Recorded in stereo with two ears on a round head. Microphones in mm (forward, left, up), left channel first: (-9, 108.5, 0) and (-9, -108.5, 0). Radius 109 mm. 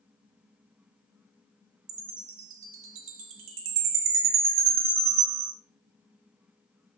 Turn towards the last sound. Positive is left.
turn(degrees=-55)  # may be behind; listen again after turning